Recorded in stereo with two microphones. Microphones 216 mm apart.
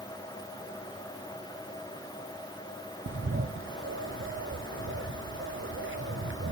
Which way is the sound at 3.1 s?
65° right (ahead or behind).